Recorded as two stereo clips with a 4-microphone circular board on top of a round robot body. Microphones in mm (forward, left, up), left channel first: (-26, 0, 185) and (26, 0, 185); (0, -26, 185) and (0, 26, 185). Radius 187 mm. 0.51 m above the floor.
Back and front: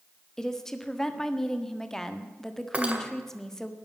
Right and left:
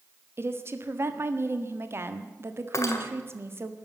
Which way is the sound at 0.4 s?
100° left.